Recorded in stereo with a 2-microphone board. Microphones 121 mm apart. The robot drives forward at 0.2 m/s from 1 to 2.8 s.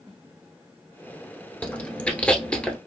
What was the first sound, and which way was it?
Chewing, 10° left (ahead or behind).